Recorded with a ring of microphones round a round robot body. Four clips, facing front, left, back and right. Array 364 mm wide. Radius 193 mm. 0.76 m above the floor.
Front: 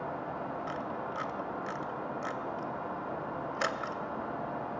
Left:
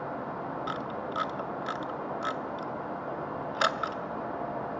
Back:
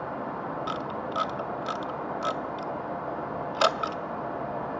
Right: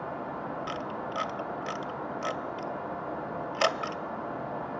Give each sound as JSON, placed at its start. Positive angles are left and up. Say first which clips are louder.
{"t": 0.7, "sound": "a camera shutter", "louder": "even, back 5 dB", "azimuth_deg": -155, "distance_m": 0.7}